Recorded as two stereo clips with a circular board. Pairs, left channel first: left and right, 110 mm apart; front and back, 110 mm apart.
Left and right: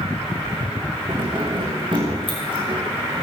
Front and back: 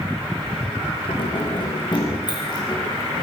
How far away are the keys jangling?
About 6.5 m.